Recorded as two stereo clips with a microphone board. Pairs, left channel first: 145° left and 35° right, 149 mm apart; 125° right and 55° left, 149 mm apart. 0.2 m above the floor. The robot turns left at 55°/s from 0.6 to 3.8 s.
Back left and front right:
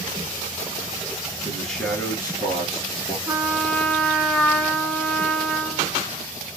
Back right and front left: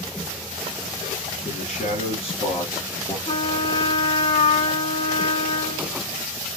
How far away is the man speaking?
About 2.5 m.